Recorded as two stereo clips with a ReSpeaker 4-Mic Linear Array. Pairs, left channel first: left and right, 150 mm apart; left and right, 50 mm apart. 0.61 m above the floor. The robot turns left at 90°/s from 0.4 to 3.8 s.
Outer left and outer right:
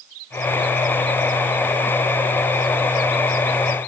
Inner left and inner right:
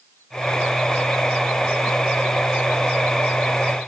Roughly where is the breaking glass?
No breaking glass in this recording.